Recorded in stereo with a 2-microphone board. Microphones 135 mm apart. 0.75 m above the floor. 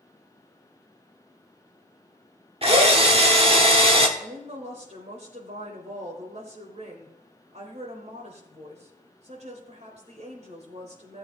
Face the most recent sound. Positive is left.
turn(degrees=-55)  # may be behind; listen again after turning